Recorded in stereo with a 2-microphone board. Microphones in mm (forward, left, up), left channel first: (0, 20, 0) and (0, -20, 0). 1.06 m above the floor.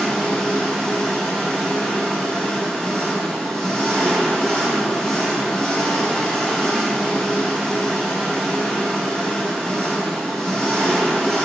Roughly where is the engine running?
Centre.